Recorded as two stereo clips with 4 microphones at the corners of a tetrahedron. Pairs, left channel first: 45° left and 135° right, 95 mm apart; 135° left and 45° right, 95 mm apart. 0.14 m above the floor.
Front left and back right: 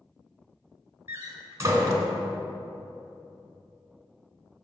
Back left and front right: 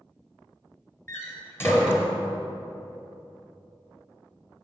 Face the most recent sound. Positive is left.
turn(degrees=-175)